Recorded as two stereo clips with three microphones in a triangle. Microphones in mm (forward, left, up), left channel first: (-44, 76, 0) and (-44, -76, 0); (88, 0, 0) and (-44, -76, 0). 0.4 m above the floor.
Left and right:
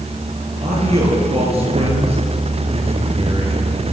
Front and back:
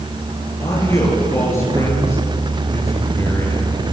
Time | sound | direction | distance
0.6 | a man speaking | 40° right | 7.5 m